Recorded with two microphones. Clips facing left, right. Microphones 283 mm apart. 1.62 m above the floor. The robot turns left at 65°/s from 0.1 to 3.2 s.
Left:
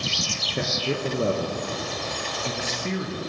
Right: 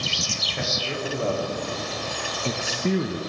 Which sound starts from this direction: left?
A man speaking, at 0.5 s.